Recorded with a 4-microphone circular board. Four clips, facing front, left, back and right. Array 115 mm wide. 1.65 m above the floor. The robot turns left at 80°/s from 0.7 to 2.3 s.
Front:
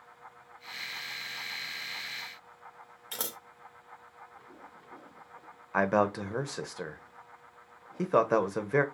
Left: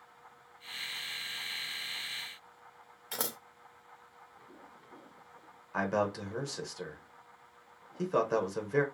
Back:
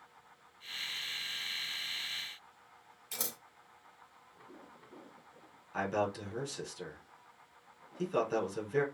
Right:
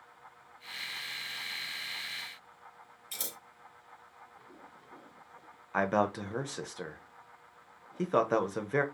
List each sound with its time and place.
3.1 s scissors: 70° left, 0.5 m
5.7 s a man speaking: 20° right, 0.8 m